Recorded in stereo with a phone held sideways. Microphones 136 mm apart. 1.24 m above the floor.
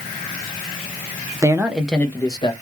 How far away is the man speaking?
About 0.5 m.